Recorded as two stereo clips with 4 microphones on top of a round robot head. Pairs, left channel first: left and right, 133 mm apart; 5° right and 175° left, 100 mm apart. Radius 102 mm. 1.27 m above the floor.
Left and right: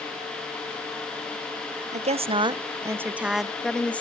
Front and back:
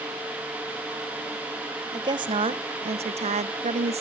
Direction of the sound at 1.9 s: 125° right.